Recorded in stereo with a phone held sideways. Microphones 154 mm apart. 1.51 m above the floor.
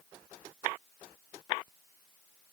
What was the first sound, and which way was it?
Only background noise.